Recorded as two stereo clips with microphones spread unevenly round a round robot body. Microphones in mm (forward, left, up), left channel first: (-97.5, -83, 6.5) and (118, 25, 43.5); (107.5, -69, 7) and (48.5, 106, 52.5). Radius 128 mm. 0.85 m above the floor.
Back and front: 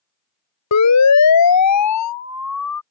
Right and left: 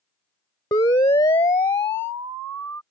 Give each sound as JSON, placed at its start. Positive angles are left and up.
{"t": 0.7, "sound": "a siren", "azimuth_deg": -145}